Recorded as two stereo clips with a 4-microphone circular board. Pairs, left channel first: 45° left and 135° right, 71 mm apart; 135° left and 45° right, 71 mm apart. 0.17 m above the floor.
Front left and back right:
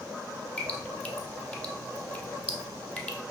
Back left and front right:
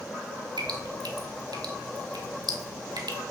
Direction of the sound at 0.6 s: 30° right.